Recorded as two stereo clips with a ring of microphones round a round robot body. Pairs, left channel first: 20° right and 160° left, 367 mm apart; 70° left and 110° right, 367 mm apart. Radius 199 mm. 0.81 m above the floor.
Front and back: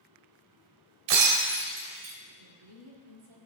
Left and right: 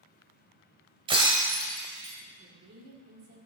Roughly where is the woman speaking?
Behind.